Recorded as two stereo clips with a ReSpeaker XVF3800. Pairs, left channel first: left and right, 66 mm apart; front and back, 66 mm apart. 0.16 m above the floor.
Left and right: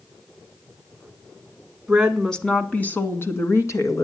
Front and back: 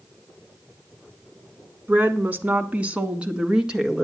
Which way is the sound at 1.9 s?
165° right.